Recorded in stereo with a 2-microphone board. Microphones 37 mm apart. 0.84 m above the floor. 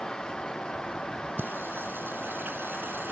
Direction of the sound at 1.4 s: 75° right (ahead or behind).